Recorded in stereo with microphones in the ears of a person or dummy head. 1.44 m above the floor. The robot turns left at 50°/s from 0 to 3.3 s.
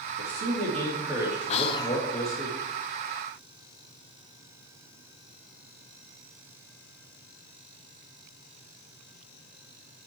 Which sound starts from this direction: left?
Whispering, at 1.5 s.